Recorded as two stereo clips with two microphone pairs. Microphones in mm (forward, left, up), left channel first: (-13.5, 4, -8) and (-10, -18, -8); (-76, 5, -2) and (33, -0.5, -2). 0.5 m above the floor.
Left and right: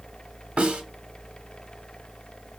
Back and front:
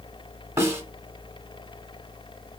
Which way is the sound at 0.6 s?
70° right.